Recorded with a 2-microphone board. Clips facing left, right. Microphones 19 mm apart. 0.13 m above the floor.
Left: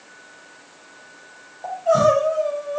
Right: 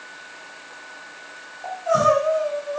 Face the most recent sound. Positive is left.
turn(degrees=0)  # may be behind; listen again after turning